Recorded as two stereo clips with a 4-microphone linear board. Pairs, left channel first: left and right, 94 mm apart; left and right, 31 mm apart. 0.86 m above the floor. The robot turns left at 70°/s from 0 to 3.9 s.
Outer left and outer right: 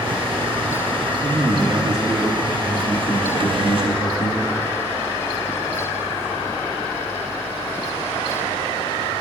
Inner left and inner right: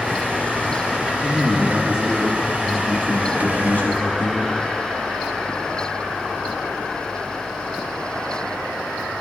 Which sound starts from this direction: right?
A man speaking, at 1.2 s.